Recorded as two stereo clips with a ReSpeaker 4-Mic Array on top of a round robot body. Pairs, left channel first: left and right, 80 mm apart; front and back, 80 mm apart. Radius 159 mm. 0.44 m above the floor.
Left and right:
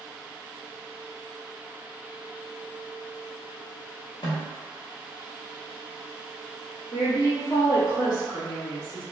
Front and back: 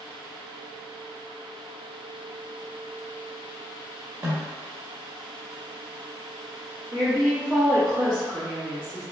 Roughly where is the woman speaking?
Left.